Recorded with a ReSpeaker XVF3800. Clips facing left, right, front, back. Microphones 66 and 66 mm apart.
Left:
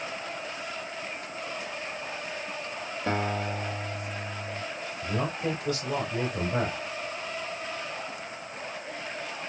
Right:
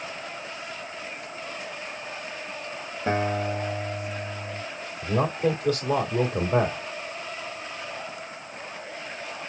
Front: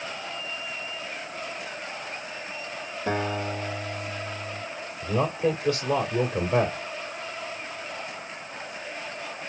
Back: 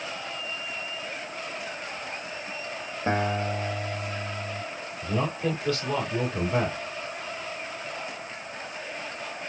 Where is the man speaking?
75° right, 2 m.